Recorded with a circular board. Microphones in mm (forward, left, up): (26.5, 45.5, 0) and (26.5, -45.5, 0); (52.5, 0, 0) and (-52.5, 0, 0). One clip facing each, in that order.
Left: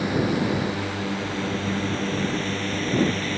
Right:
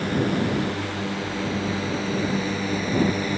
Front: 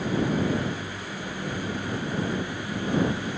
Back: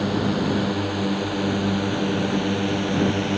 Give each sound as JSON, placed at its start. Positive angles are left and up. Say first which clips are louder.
{"t": 0.0, "sound": "a drone", "louder": "even, back 3 dB", "azimuth_deg": 175}